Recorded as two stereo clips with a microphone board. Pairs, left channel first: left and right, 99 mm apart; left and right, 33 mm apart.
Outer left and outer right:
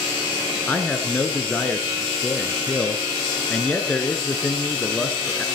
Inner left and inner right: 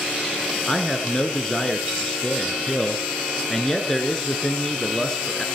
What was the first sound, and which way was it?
A man speaking, 15° left (ahead or behind).